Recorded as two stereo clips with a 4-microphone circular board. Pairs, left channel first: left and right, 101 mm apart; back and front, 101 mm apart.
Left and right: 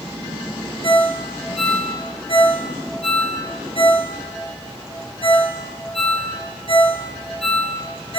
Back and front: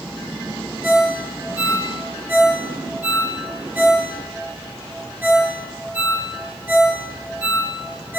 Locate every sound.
0.8 s a ringtone: 70° left, 2 m